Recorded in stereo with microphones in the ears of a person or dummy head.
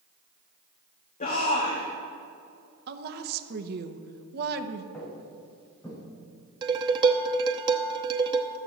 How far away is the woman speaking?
About 0.9 m.